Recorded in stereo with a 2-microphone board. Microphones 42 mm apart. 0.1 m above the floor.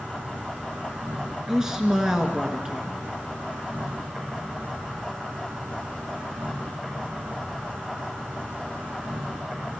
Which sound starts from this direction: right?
An insect, at 0.0 s.